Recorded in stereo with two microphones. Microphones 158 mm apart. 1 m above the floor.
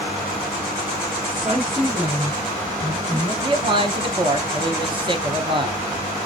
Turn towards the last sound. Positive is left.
turn(degrees=-35)  # may be behind; listen again after turning